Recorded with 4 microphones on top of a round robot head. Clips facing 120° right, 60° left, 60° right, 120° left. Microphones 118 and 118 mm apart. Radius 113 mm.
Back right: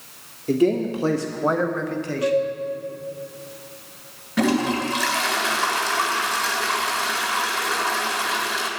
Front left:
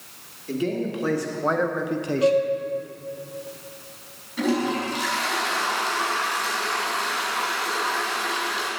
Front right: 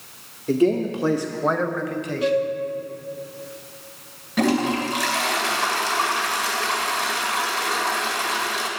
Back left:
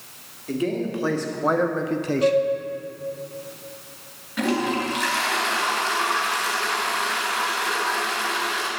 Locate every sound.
0.5 s a man speaking: 100° right, 1.4 m; by 2.4 s 105° left, 1.3 m
2.2 s a flute: 105° left, 1.5 m
4.4 s a toilet flushing: 110° right, 2 m